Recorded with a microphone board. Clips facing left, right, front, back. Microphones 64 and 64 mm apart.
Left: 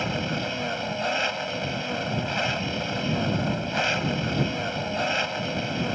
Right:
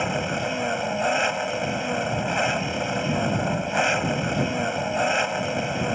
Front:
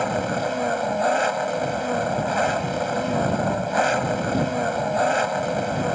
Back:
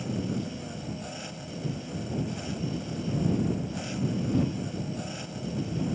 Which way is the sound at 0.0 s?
15° right.